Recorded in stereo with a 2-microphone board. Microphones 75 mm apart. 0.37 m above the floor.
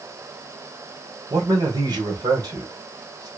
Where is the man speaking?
60° right (ahead or behind), 1.9 m.